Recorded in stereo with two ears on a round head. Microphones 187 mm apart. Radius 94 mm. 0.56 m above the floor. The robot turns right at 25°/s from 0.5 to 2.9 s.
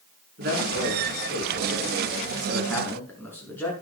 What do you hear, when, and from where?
0.4 s a man speaking: 50° right, 5.5 m; by 3.7 s 10° left, 5.5 m